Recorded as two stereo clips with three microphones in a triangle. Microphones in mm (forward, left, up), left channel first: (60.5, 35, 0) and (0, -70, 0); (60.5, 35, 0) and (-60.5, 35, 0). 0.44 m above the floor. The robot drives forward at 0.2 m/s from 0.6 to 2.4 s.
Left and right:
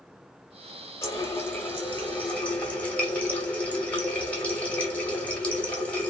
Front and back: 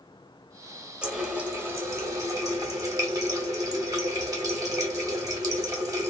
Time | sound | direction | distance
1.0 | a running tap | 105° left | 0.7 m